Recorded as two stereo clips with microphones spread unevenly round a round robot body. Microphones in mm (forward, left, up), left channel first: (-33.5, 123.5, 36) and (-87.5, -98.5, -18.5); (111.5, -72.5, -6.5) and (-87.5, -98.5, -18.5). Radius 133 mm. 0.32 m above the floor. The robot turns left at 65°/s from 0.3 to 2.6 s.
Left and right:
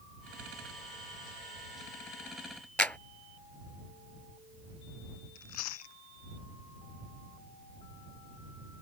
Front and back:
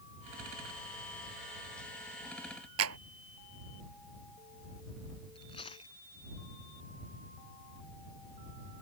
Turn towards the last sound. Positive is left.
turn(degrees=80)